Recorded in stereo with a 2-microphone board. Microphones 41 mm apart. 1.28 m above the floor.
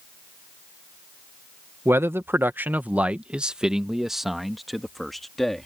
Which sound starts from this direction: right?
A man speaking, at 1.9 s.